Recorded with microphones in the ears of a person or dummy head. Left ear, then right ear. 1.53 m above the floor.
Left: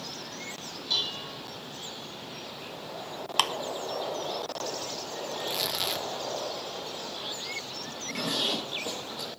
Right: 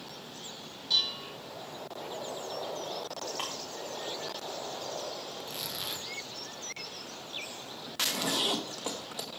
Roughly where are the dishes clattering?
Centre.